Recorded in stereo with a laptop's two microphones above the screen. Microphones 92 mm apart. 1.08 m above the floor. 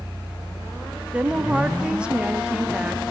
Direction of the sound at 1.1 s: 10° right (ahead or behind).